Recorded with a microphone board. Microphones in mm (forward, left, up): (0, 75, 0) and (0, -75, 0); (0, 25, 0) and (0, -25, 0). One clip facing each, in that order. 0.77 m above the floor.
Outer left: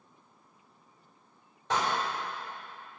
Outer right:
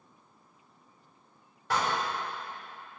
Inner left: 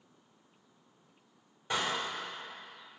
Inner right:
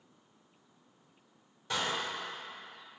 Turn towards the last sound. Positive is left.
turn(degrees=20)  # may be behind; listen again after turning